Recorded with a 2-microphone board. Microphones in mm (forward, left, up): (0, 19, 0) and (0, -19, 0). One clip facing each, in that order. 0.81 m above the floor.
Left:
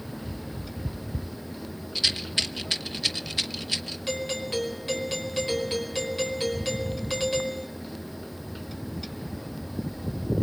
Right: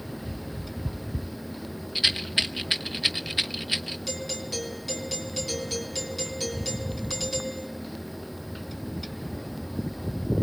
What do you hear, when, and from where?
1.9 s a rattle: 25° right (ahead or behind), 1.1 m
4.1 s a doorbell: 30° left (ahead or behind), 5 m